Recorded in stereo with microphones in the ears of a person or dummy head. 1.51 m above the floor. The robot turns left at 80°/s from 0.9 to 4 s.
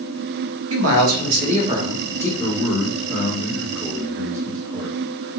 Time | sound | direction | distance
0.7 | a man speaking | 85° right | 1.0 m
2.4 | a man speaking | 110° left | 1.6 m